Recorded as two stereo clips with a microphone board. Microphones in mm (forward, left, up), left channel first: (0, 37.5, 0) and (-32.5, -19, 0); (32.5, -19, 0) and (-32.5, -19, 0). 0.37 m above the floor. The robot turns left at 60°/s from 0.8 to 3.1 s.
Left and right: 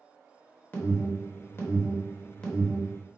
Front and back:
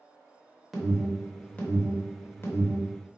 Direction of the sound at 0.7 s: 90° left.